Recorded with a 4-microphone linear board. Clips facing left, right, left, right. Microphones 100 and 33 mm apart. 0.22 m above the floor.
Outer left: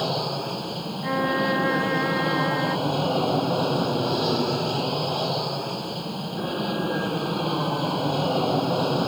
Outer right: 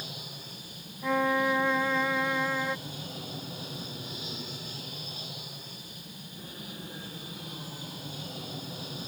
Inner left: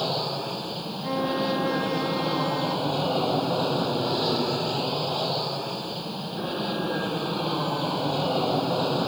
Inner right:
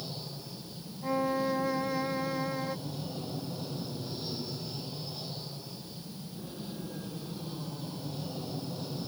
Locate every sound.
0.0 s an aircraft: 70° left (ahead or behind)
1.0 s a violin: 5° left (ahead or behind)